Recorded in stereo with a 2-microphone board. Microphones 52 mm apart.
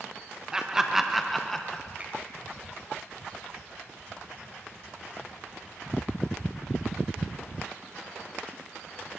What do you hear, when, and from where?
0.5 s laughter: 15° right (ahead or behind), 0.8 m; by 1.8 s 10° left (ahead or behind), 0.7 m
2.0 s a finger snap: 35° right (ahead or behind), 3 m